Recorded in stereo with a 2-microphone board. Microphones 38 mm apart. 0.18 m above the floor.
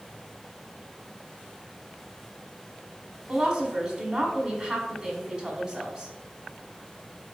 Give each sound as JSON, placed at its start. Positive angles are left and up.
{"t": 3.3, "sound": "a woman speaking", "side_deg": -30, "distance_m": 1.4}